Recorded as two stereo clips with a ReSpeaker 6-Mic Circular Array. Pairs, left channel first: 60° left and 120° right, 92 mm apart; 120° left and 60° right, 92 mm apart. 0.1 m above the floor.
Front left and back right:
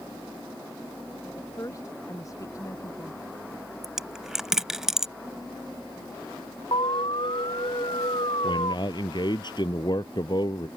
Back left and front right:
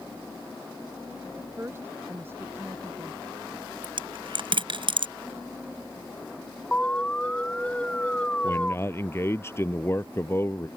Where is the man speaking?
65° left.